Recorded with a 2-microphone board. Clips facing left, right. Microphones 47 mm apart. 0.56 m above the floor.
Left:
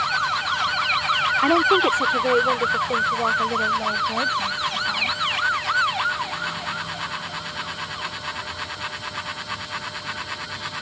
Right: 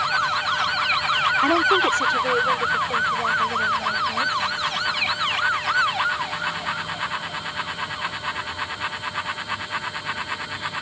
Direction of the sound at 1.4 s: 5° left (ahead or behind).